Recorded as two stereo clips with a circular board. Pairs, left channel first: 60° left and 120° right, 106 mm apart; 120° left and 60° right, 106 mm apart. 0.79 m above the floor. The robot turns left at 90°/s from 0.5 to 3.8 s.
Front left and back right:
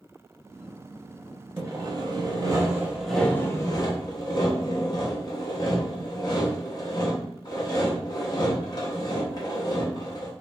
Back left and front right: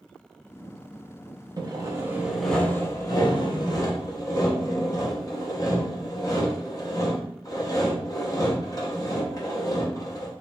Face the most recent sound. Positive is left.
turn(degrees=85)